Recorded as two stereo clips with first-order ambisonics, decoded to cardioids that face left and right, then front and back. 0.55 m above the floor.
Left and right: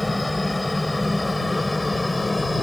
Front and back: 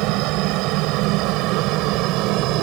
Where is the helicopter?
175° left.